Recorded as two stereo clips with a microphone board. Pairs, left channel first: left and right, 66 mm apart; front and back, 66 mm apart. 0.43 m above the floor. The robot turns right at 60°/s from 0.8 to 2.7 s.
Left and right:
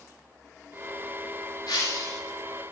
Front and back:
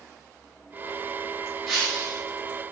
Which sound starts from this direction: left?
Breaking glass, at 1.7 s.